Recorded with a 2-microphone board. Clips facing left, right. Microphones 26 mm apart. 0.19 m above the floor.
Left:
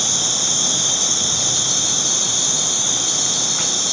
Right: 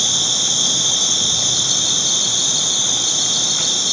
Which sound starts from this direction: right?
An insect, at 0.0 s.